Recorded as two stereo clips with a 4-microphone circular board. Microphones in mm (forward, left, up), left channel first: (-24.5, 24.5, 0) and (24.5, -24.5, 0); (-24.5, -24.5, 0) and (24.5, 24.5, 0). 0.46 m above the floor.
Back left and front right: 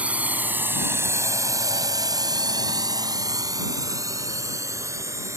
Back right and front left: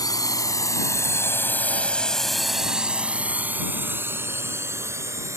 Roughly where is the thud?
I don't hear a thud.